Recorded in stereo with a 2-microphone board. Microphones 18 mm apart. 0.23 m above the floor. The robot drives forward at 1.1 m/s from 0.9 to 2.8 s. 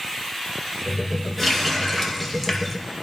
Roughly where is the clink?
No clink in this recording.